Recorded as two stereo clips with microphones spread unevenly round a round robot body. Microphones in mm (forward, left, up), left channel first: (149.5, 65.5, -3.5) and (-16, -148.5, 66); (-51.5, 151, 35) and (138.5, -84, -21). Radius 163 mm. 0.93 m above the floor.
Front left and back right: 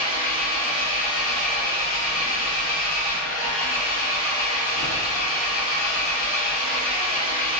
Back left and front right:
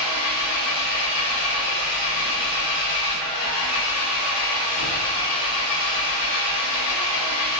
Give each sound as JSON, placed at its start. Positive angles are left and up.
{"t": 0.0, "sound": "an engine running", "azimuth_deg": 90, "distance_m": 0.8}